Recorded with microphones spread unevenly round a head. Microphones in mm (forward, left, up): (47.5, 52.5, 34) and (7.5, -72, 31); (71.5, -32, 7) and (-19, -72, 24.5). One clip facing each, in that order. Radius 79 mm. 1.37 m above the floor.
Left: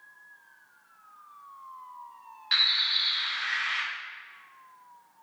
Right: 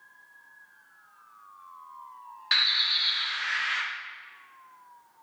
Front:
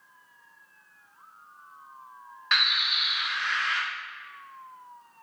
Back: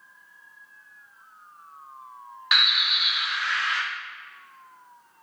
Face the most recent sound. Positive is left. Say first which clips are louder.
# right 2 dB, back 2 dB
turn(degrees=-80)